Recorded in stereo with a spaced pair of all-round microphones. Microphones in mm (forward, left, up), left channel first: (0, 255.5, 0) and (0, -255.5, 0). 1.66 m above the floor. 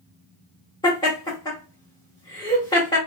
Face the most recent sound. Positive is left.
turn(degrees=10)  # may be behind; listen again after turning